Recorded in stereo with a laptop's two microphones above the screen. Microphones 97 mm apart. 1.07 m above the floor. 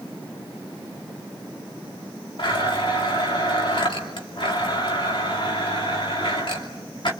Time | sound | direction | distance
2.4 | a blender | 60° left (ahead or behind) | 2.5 m